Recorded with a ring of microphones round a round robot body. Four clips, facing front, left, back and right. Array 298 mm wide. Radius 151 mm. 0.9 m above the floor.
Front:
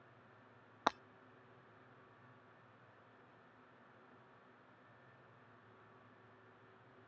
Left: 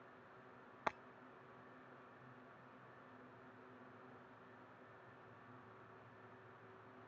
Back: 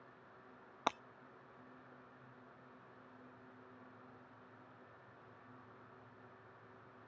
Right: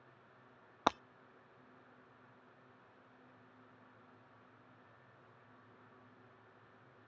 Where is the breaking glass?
85° right.